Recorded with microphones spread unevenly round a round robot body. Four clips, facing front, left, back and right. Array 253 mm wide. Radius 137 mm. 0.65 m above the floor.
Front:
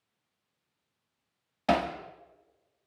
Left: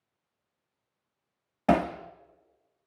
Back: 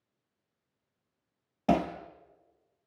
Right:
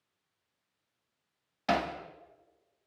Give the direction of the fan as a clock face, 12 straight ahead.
I don't hear a fan.